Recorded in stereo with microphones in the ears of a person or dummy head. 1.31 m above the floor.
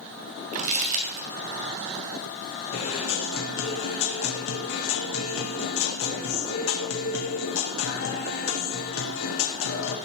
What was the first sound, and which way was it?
Crumpling, 40° right (ahead or behind).